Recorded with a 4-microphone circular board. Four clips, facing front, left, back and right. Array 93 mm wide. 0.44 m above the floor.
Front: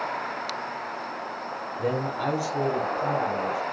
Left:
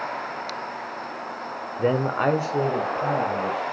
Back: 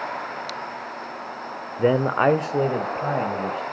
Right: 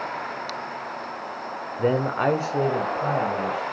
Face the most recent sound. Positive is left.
turn(degrees=180)